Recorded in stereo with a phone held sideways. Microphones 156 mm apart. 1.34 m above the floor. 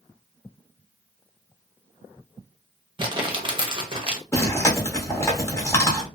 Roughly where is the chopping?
I don't hear chopping.